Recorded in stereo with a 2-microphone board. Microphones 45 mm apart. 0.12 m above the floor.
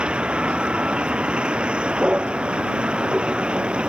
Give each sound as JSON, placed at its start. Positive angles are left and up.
{"t": 0.0, "sound": "a vehicle", "side_deg": -20}